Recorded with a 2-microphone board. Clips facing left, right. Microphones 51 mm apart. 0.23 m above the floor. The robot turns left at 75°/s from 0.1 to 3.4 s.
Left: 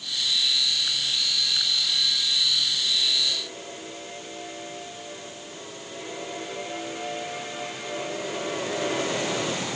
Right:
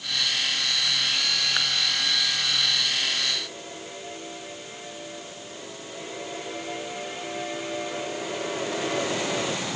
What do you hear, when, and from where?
Only background noise.